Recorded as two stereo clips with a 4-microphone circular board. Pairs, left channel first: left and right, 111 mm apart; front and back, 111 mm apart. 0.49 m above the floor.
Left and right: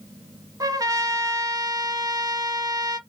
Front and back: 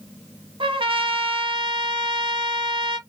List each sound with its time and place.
0.6 s a trumpet: 145° right, 0.8 m